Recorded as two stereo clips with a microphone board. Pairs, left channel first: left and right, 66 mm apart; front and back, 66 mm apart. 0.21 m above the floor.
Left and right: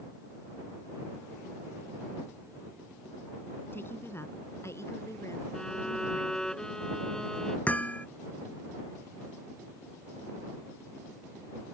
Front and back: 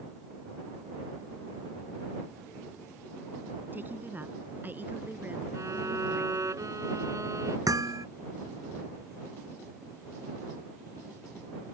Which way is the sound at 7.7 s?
155° left.